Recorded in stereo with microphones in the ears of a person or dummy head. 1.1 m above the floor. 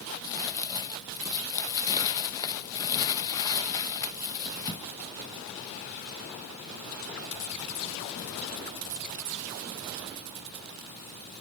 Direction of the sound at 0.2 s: 20° left (ahead or behind).